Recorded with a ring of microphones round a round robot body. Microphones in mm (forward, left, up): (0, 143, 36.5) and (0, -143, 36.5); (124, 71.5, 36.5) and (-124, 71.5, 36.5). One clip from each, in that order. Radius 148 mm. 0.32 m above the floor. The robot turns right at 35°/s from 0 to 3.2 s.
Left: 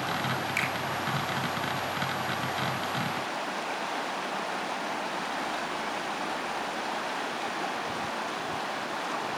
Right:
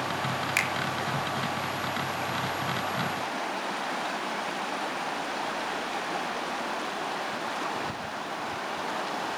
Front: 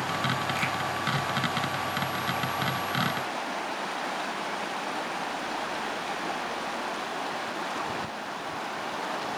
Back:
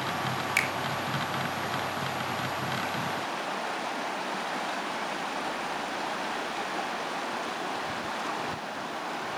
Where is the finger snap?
150° right, 3.5 m; by 0.7 s 145° right, 3.5 m.